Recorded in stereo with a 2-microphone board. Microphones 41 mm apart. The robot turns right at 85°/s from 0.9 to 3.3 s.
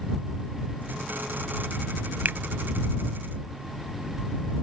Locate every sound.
2.2 s a finger snap: 45° right (ahead or behind)